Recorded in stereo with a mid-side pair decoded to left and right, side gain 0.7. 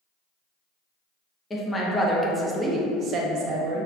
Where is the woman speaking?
20° left, 0.9 m; by 3.9 s 70° right, 0.9 m.